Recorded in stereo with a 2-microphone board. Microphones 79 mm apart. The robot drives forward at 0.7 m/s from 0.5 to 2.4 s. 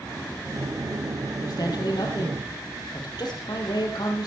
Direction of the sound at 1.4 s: 55° left (ahead or behind).